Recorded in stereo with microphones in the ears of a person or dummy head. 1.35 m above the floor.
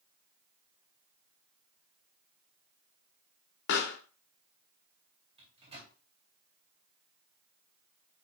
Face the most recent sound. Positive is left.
turn(degrees=-25)  # may be behind; listen again after turning